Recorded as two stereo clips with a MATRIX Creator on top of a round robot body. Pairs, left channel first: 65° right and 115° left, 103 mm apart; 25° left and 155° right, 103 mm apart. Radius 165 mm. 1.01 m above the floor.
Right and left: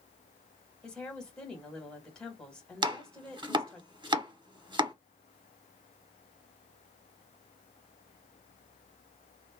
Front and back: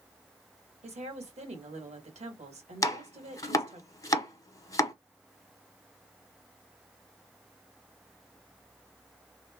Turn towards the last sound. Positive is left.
turn(degrees=75)